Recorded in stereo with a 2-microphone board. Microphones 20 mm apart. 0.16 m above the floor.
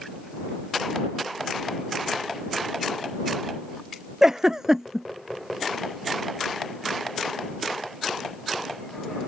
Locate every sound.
4.2 s a giggle: 25° right (ahead or behind)